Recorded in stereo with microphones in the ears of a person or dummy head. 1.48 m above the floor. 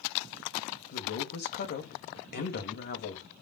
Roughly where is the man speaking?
Left.